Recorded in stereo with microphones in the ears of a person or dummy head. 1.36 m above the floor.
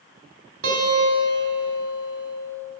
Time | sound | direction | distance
0.6 | a guitar | 75° right (ahead or behind) | 3.5 m